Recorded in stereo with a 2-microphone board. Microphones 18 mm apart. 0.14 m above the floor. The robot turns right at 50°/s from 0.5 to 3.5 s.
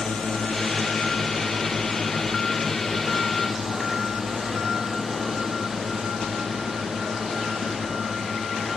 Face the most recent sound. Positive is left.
turn(degrees=-25)  # may be behind; listen again after turning